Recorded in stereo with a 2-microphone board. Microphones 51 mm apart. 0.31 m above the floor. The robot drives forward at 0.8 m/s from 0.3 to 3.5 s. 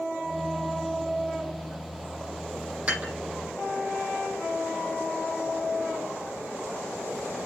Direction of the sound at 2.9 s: 25° right (ahead or behind).